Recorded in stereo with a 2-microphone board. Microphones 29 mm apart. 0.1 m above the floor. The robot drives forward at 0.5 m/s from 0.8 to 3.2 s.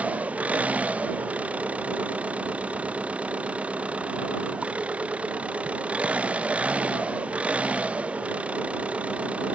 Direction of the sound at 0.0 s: 60° right (ahead or behind).